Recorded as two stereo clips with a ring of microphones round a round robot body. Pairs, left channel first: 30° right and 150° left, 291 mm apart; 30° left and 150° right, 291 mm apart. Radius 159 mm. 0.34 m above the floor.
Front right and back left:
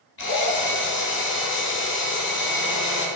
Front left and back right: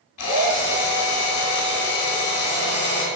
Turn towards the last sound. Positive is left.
turn(degrees=20)